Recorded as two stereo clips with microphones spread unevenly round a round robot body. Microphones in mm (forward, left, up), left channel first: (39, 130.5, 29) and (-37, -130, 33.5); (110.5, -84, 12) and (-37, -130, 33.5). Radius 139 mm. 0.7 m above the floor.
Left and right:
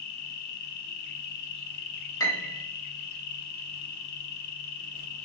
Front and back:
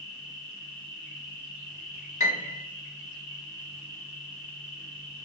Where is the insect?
90° left, 0.8 m.